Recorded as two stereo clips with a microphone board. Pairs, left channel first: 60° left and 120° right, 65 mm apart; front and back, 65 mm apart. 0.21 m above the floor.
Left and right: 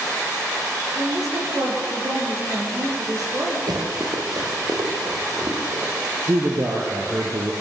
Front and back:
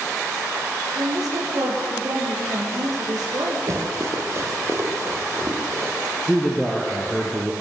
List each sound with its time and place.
0.9 s a woman speaking: 155° right, 10 m
3.7 s running footsteps: 140° right, 5 m; by 5.9 s 130° right, 7 m
6.2 s a man speaking: 90° right, 3.5 m